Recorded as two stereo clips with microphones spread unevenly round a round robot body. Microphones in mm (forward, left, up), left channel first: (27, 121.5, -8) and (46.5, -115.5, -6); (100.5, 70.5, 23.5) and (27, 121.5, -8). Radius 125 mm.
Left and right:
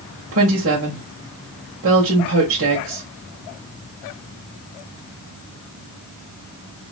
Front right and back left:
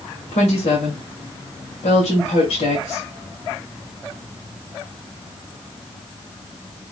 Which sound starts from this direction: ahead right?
A woman speaking, at 0.3 s.